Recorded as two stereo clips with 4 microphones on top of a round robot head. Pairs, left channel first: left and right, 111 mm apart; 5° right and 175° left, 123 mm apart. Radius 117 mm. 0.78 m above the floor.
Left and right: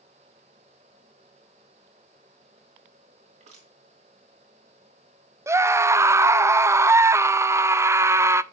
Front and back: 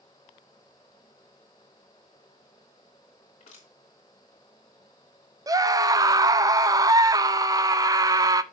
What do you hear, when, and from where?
3.4 s crushing: 55° right, 2.5 m
5.5 s a scream: 145° right, 0.6 m